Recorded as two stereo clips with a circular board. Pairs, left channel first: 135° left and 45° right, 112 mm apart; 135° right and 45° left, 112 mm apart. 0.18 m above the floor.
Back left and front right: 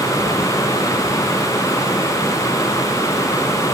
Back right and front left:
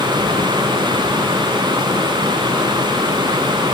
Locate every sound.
Only background noise.